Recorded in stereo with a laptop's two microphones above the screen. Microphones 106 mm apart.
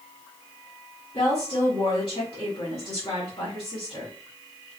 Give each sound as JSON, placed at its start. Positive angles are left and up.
{"t": 1.1, "sound": "a woman speaking", "side_deg": 55, "distance_m": 2.5}